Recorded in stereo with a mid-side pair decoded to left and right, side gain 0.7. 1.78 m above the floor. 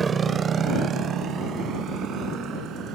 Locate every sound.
0.0 s a motorcycle: 30° right; by 3.0 s 50° right